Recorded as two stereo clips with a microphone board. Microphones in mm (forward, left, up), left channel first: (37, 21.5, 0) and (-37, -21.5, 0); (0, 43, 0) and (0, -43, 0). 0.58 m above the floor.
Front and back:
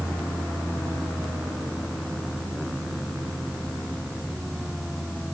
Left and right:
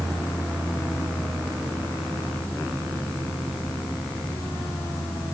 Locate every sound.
Only background noise.